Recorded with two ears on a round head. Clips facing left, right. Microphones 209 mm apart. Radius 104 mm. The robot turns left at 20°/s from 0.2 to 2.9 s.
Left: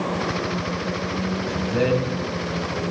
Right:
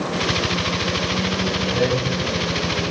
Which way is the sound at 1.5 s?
15° left (ahead or behind).